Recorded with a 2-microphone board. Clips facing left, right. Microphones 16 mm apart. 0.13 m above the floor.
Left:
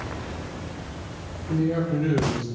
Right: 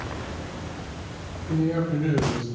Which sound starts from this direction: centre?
A man speaking, at 1.5 s.